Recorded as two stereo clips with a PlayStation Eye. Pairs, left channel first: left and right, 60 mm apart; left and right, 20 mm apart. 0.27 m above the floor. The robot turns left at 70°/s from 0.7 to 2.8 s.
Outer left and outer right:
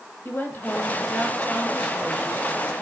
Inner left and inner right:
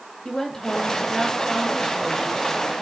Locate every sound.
0.2 s a woman speaking: 80° left, 1.6 m; by 2.8 s 65° right, 1.6 m